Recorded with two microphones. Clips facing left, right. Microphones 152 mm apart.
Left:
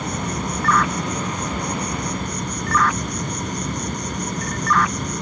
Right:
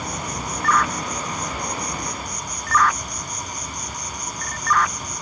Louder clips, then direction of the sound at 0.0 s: Left 4 dB; 65° left (ahead or behind).